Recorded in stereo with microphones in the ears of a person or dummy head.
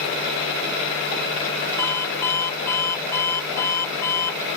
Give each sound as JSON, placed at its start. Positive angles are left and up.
{"t": 1.8, "sound": "an alarm clock", "side_deg": 15}